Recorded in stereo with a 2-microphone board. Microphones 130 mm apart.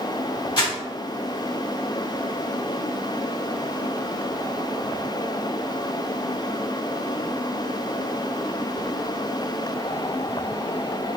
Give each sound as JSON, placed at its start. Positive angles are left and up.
{"t": 0.6, "sound": "crumpling", "side_deg": 40, "distance_m": 1.7}